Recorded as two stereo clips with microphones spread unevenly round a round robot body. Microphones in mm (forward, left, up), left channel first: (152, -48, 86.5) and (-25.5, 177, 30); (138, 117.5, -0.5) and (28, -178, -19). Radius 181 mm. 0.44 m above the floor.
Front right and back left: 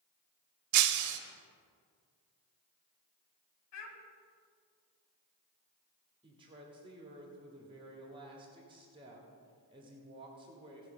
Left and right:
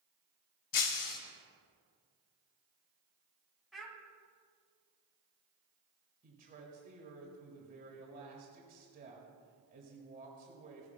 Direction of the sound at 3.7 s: 20° right.